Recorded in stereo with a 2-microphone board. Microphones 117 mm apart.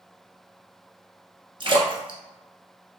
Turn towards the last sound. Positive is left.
turn(degrees=-45)  # may be behind; listen again after turning